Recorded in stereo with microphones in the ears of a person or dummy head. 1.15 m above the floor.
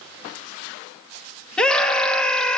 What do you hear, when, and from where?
1.6 s a scream: 5° left (ahead or behind), 2.5 m